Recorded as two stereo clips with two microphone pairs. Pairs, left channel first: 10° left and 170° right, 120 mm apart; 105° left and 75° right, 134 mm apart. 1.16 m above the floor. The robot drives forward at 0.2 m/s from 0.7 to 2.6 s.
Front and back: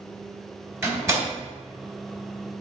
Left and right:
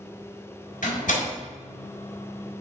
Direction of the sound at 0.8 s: 125° left.